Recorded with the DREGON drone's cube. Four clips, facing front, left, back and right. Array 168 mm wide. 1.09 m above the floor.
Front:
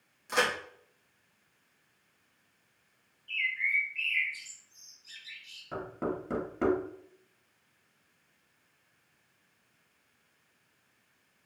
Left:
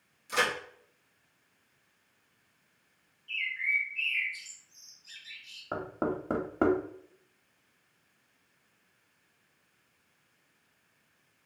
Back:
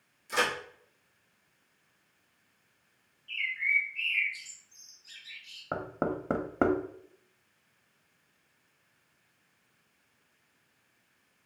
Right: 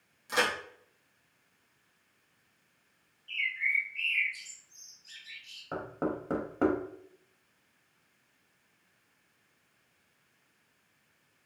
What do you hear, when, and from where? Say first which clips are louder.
0.3 s a crack: even, front 1 dB; 35° right, 1.1 m
3.3 s a bird: even, even; 150° right, 0.8 m
5.7 s knocking: left 1 dB, back 2 dB; 165° left, 0.6 m